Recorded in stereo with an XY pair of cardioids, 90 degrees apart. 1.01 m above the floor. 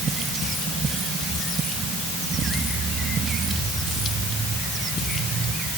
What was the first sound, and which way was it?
Only background noise.